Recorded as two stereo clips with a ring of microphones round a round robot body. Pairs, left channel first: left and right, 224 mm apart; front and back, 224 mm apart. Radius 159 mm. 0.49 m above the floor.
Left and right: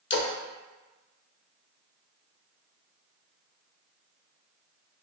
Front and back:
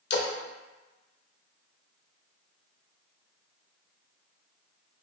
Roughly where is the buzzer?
I don't hear a buzzer.